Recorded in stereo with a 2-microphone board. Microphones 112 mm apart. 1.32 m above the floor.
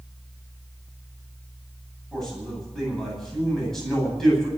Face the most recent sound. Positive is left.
turn(degrees=5)  # may be behind; listen again after turning